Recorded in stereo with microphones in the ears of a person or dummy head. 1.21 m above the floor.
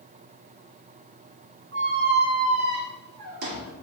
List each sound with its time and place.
1.7 s a squeak: 60° right (ahead or behind), 1.1 m